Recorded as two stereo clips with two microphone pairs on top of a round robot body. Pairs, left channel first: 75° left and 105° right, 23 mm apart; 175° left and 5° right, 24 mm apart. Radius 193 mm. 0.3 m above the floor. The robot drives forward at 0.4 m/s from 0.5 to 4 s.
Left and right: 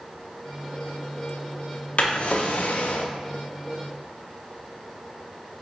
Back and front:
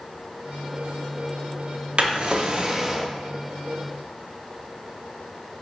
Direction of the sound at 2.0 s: 35° left.